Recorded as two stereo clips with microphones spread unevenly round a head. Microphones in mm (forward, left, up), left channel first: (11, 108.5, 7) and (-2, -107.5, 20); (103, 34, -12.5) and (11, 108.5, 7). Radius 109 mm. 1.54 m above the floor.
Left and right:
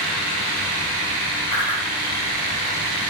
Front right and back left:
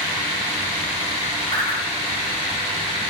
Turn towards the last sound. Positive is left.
turn(degrees=15)